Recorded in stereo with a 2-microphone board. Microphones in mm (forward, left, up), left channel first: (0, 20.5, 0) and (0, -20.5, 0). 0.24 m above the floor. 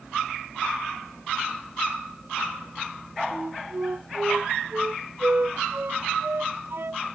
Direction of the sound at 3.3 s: 65° right (ahead or behind).